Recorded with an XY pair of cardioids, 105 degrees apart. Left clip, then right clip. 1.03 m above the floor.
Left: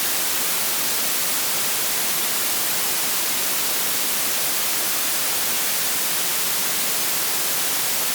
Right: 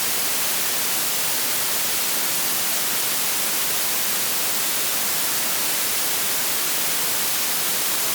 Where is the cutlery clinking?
No cutlery clinking in this recording.